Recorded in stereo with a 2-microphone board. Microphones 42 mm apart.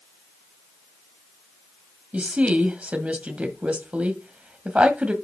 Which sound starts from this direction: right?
A woman speaking, at 2.1 s.